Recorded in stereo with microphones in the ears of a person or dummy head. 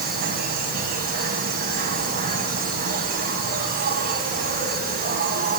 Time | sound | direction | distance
0.0 | an insect | 50° right (ahead or behind) | 2.5 m